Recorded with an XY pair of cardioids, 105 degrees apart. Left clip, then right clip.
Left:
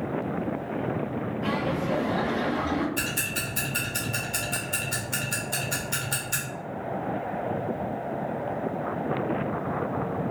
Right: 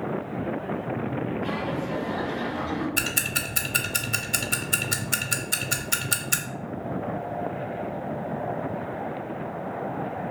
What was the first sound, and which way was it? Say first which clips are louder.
Laughter: left 1 dB; 55° left.